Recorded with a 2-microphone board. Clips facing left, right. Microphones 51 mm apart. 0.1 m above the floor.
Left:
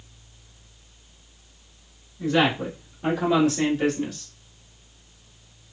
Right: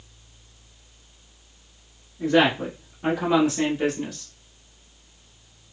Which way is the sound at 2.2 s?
30° right (ahead or behind).